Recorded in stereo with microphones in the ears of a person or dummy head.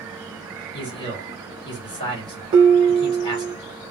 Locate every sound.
0.7 s a man speaking: 35° left (ahead or behind), 2 m
2.5 s dishes clattering: 35° right (ahead or behind), 1.1 m